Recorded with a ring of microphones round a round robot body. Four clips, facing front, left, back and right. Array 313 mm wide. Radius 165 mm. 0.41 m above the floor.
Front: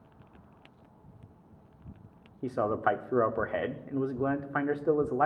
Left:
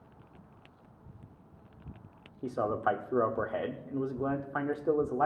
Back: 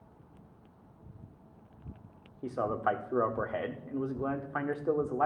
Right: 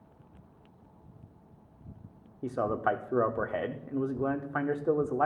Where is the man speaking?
20° right, 1.0 m.